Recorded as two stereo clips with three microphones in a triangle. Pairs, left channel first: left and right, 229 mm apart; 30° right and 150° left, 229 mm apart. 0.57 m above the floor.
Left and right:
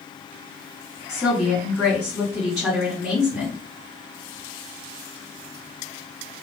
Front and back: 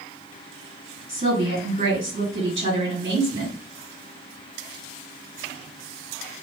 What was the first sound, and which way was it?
A woman speaking, 170° right.